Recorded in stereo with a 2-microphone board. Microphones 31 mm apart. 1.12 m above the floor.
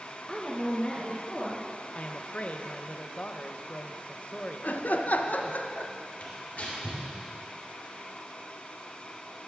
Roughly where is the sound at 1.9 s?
Left.